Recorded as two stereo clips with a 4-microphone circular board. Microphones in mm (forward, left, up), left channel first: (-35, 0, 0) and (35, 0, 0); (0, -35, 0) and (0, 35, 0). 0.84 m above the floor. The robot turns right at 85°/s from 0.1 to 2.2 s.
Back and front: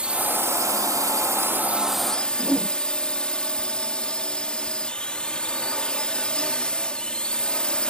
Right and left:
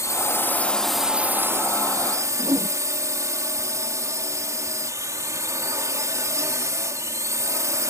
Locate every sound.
0.0 s a drone: 70° right; by 7.9 s 105° left
2.4 s a whoosh: 105° left